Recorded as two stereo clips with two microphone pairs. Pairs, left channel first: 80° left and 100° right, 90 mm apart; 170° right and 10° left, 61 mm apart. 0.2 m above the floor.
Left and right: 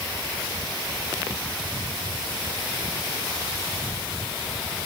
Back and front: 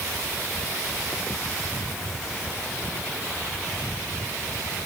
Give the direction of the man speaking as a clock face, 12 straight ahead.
I don't hear a man speaking.